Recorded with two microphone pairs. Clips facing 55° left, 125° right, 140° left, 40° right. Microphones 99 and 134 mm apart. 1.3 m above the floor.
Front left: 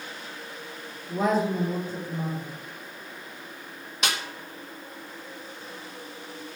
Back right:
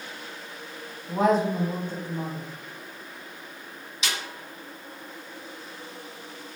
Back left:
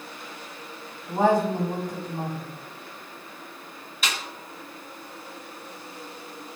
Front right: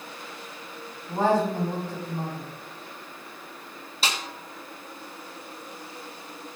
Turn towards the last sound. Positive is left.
turn(degrees=20)